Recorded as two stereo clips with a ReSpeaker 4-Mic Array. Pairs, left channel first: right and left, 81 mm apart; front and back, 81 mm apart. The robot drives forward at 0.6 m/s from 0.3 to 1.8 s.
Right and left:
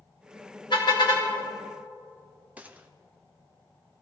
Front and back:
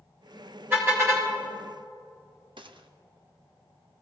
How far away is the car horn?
About 4 m.